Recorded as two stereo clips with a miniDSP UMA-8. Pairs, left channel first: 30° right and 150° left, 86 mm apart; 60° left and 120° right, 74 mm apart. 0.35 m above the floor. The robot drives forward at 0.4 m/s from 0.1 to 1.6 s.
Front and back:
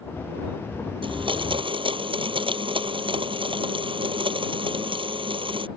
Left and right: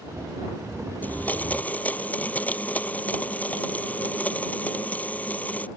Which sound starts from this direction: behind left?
A blender, at 1.0 s.